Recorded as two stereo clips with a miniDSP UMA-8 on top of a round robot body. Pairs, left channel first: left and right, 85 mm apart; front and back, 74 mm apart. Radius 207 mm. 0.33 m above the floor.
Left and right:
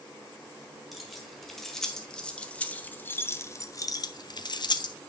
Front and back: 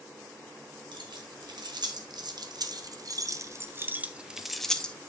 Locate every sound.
0.9 s keys jangling: straight behind, 2 m; by 5.0 s 70° left, 1.0 m